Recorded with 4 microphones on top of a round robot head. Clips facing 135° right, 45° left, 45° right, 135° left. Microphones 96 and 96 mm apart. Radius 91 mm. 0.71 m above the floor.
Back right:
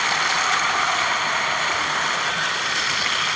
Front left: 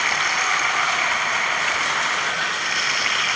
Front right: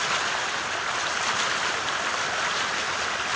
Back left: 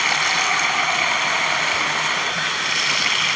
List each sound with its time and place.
0.0 s running water: 145° left